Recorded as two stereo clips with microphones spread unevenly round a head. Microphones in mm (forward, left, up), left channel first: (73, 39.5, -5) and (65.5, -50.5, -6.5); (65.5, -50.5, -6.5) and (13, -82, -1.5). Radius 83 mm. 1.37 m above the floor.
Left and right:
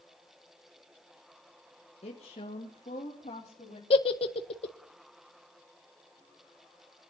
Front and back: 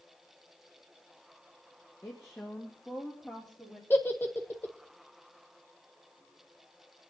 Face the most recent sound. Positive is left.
turn(degrees=95)